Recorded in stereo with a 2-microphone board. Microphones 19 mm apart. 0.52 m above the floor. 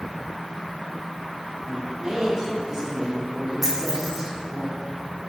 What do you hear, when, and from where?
1.6 s a man speaking: 30° right (ahead or behind), 1.3 m
3.6 s a dropped coin: 15° right (ahead or behind), 2 m